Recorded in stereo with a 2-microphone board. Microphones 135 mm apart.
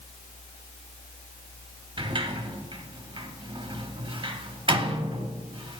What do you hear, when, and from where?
2.0 s a sliding door: 40° right (ahead or behind), 0.7 m